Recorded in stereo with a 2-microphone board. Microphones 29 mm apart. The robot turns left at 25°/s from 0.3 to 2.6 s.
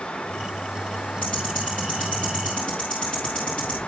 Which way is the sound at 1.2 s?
80° left.